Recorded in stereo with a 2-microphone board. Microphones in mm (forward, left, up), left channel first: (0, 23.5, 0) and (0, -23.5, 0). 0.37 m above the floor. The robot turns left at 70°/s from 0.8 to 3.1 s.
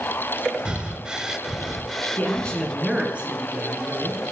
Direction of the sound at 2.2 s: 40° left.